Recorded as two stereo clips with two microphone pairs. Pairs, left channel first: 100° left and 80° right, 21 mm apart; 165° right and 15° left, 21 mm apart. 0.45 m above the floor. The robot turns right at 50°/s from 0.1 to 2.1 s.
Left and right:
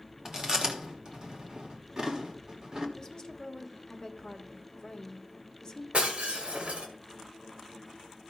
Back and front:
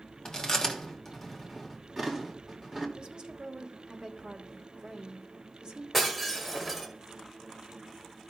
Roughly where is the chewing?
Behind right.